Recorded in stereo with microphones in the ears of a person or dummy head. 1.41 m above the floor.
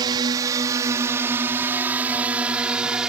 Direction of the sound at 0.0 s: 25° right (ahead or behind).